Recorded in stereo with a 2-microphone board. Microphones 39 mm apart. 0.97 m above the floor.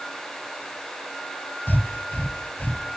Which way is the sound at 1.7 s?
55° left (ahead or behind).